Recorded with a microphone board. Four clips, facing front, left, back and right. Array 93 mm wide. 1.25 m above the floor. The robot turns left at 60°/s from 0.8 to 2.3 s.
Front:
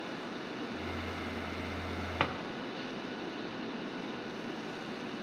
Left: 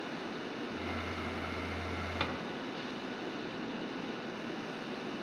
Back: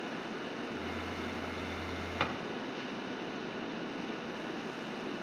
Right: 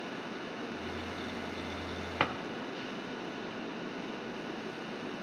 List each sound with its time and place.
2.2 s a drawer: 65° right, 0.8 m; by 2.3 s 75° right, 0.8 m